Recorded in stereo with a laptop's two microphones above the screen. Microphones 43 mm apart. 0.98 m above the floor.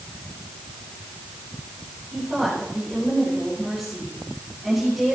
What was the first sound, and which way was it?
A woman speaking, 5° right (ahead or behind).